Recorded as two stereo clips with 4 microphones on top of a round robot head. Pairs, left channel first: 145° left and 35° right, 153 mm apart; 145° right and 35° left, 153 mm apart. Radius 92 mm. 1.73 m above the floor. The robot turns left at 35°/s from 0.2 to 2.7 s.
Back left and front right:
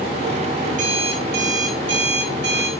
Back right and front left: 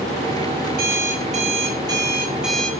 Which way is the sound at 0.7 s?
10° left.